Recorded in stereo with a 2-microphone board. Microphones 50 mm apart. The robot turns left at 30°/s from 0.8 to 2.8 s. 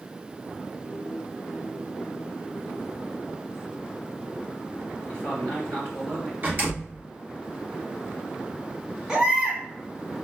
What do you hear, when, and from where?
5.1 s a man speaking: 45° right (ahead or behind), 2.5 m
6.4 s a door slam: 50° right (ahead or behind), 2 m
9.1 s a baby crying: 15° right (ahead or behind), 1.1 m